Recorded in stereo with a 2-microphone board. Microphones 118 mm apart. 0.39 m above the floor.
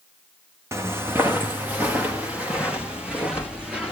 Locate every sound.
0.7 s footsteps: 25° right (ahead or behind), 1.3 m; by 3.9 s 10° right (ahead or behind), 3.5 m